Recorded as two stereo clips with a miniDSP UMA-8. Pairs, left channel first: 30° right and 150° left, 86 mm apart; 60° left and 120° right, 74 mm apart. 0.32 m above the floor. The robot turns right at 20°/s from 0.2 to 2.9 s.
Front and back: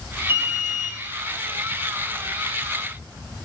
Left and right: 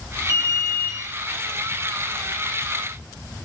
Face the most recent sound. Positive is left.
turn(degrees=-100)